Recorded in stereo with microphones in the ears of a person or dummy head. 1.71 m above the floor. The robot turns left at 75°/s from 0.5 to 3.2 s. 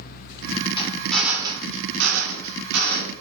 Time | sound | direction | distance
0.8 | a drill | 30° left | 1.7 m